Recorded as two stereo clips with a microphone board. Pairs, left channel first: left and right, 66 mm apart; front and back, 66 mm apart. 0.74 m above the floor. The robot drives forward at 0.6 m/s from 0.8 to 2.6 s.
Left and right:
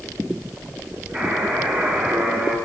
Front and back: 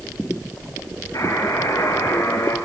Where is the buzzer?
25° right, 5 m; by 2.5 s 30° right, 4 m.